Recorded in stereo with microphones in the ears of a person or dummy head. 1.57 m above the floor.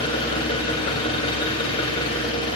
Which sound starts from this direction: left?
An engine running, at 0.0 s.